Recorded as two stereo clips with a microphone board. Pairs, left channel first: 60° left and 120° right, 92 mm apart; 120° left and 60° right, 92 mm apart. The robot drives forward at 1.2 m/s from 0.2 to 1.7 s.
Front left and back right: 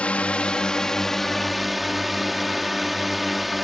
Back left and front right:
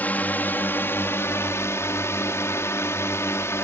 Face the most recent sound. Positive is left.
turn(degrees=150)